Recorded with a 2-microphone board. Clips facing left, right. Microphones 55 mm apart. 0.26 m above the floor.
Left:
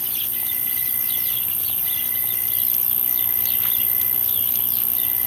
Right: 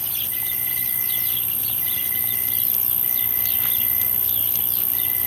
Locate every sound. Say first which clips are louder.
0.0 s an insect: right 1 dB; 55° right (ahead or behind), 6.5 m